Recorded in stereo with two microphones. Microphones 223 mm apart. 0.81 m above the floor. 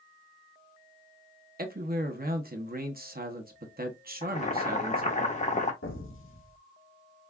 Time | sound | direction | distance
1.6 | a man speaking | 45° right (ahead or behind) | 0.8 m
4.2 | boiling | 35° left (ahead or behind) | 0.7 m
5.8 | an explosion | 65° left (ahead or behind) | 0.9 m